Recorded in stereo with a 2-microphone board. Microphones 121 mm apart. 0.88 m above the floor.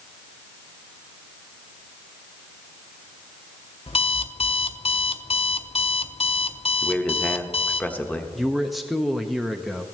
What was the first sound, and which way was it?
An alarm clock, 50° left (ahead or behind).